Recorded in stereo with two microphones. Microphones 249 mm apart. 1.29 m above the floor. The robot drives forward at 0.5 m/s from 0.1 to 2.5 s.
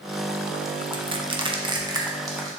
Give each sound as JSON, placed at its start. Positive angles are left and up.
{"t": 0.9, "sound": "crushing", "side_deg": -20, "distance_m": 0.5}